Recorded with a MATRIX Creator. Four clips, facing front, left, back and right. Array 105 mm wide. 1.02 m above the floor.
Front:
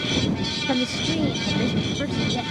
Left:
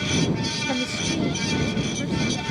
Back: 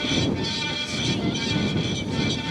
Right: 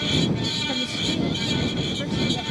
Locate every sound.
0.7 s a woman speaking: 15° left; by 2.4 s 15° right